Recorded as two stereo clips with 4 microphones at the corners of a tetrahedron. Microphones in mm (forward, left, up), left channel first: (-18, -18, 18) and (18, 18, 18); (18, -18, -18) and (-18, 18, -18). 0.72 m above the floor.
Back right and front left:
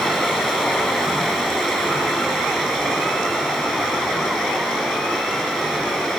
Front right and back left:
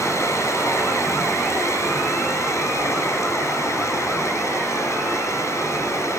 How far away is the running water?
About 9 m.